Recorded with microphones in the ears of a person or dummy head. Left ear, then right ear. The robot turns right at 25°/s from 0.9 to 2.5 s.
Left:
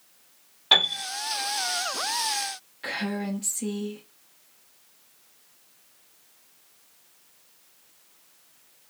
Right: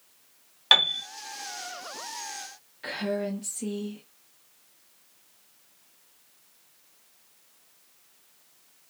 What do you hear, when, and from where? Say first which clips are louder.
0.7 s a piano: even; 60° right (ahead or behind), 1.4 m
2.8 s a woman speaking: right 1 dB; 5° left (ahead or behind), 0.6 m